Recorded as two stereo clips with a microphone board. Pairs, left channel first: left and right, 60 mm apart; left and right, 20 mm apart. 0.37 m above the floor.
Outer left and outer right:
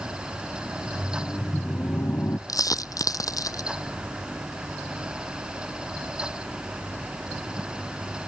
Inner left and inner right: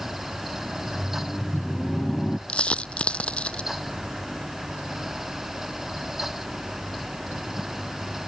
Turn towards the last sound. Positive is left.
turn(degrees=70)  # may be behind; listen again after turning